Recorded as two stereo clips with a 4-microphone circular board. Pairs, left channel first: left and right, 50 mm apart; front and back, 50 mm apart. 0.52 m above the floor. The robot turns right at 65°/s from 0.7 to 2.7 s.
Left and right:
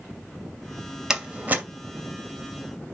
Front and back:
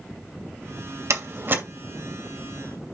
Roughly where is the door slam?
Behind.